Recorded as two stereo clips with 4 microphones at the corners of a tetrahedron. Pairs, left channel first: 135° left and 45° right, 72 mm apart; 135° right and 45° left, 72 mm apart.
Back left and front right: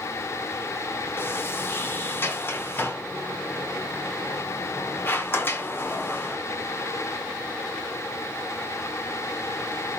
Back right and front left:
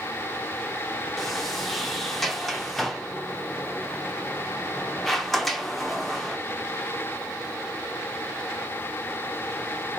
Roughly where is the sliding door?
Behind left.